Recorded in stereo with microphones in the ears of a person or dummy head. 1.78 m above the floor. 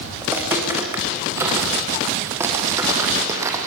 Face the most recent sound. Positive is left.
turn(degrees=-20)  # may be behind; listen again after turning